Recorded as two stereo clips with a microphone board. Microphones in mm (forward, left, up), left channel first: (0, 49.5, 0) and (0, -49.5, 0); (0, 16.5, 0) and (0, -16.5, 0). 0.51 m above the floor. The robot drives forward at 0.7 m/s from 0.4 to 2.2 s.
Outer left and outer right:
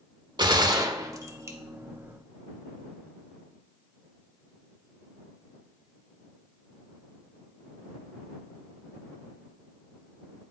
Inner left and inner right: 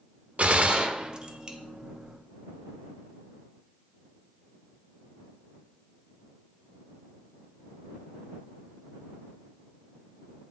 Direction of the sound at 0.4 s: 45° right (ahead or behind).